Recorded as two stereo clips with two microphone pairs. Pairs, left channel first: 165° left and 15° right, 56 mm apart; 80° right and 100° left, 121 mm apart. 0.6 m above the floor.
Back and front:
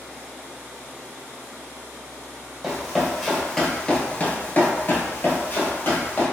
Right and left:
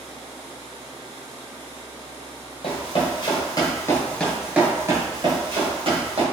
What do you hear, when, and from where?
2.6 s running footsteps: 95° right, 1.1 m; by 6.2 s 120° left, 1.2 m